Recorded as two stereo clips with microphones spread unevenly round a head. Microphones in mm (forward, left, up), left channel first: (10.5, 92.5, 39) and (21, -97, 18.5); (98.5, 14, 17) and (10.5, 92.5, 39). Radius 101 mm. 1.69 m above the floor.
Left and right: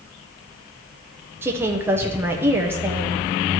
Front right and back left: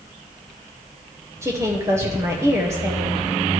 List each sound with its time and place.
1.4 s a woman speaking: 170° right, 0.7 m